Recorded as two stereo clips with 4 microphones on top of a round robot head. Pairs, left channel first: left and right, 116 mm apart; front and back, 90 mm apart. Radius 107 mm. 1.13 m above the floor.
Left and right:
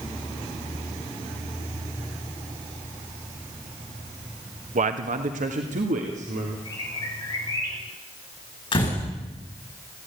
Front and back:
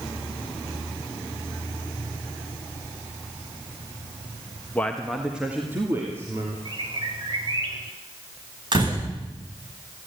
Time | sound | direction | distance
4.8 | a man speaking | 75° right | 1.2 m
6.7 | a bird | 150° left | 6.5 m
8.7 | a door slam | 145° left | 9 m